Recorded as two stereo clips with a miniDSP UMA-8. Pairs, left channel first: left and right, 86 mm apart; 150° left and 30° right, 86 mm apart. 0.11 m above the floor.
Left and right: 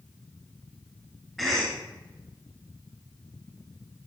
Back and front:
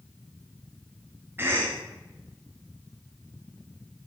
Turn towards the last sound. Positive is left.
turn(degrees=0)